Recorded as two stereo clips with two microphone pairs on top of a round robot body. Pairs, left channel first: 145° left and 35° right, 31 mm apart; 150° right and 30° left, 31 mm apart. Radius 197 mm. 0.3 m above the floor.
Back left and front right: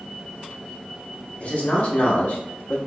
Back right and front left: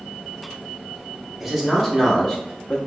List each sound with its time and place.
1.4 s a man speaking: 115° left, 1.3 m; by 2.8 s 165° left, 1.1 m